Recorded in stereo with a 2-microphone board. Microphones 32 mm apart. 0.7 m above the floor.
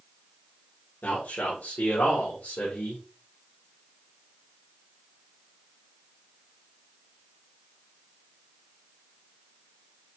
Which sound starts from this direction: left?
A man speaking, at 1.0 s.